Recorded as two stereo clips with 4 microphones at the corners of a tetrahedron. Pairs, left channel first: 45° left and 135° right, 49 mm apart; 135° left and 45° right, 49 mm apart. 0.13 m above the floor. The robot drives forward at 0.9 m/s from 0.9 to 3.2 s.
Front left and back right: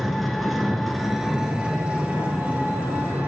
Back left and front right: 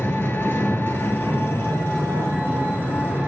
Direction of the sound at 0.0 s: 135° left.